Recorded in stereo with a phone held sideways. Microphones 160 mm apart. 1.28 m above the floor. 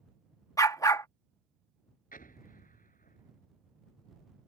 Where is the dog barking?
20° left (ahead or behind).